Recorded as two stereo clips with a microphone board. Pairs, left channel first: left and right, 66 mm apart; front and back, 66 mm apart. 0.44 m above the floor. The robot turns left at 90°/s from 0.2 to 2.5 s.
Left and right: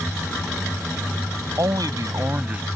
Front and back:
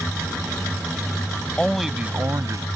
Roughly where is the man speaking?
Right.